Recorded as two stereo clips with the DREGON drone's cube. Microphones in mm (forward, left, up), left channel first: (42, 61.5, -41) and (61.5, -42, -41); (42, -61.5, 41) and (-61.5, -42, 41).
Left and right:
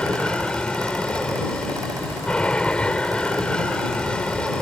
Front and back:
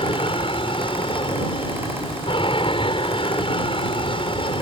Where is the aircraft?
20° left.